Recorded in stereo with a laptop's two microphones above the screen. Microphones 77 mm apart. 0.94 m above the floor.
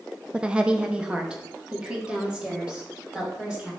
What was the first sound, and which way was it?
A woman speaking, 10° right (ahead or behind).